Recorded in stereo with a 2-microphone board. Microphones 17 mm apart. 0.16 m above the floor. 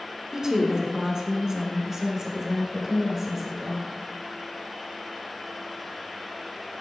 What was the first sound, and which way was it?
A woman speaking, 30° right (ahead or behind).